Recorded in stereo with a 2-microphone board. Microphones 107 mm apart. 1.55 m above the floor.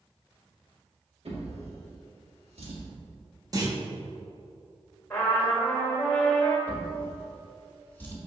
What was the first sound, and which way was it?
A drawer, 70° right (ahead or behind).